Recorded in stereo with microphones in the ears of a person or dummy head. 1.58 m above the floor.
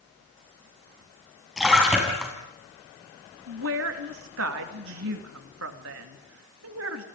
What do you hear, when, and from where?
1.6 s a splash: centre (ahead or behind), 6 m
3.5 s a woman speaking: 80° right, 2.5 m